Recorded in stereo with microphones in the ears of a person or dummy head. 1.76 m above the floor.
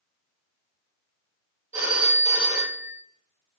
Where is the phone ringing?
10° right (ahead or behind), 1.9 m.